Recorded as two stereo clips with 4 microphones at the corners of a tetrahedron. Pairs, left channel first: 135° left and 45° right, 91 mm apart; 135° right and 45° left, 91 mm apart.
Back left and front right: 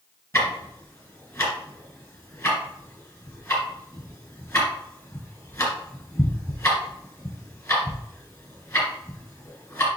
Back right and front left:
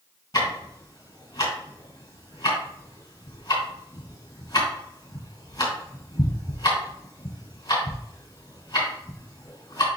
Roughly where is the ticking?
Behind.